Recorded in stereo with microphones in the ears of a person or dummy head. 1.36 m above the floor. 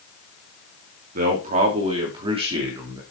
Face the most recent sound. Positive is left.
turn(degrees=-25)  # may be behind; listen again after turning